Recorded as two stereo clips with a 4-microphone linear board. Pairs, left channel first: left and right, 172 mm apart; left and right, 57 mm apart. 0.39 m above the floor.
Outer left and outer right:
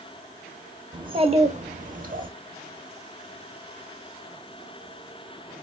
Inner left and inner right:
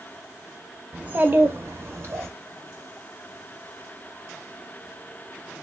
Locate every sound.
0.9 s a child speaking: 25° right (ahead or behind), 0.7 m; by 2.3 s 55° right (ahead or behind), 0.9 m